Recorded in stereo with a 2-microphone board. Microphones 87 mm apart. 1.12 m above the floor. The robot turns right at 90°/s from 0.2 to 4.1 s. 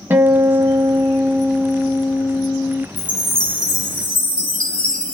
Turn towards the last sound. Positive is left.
turn(degrees=75)